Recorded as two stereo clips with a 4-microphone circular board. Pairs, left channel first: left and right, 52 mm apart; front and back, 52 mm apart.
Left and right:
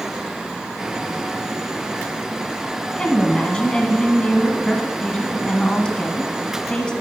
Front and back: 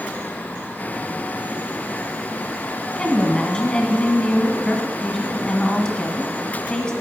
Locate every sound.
3.0 s a woman speaking: 45° left, 1.0 m